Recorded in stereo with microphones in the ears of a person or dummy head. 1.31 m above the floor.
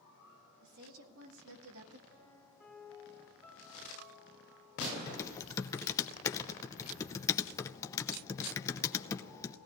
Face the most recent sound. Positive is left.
turn(degrees=15)  # may be behind; listen again after turning